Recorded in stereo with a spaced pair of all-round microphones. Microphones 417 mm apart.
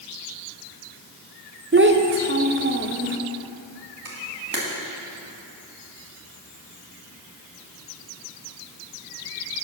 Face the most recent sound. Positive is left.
turn(degrees=-55)  # may be behind; listen again after turning